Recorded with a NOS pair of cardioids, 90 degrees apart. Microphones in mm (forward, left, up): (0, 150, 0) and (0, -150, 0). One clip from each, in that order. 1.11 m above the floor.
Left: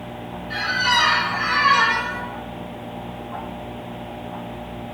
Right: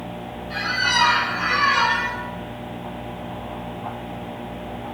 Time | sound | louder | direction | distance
0.5 | a squeak | left 1 dB | 15° left | 1.1 m